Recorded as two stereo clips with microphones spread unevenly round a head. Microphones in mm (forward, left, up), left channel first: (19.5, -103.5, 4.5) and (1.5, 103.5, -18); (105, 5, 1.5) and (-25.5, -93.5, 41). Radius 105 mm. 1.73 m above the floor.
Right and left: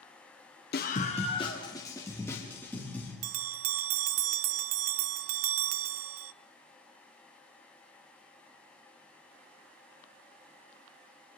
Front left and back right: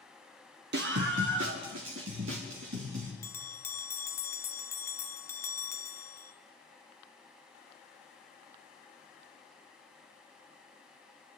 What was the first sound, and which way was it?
A scream, 130° right.